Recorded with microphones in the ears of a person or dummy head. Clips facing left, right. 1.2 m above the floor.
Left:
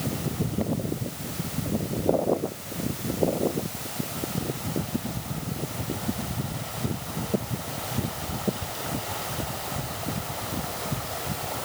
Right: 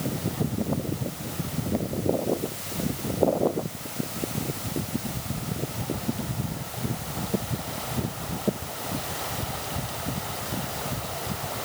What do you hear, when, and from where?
Only background noise.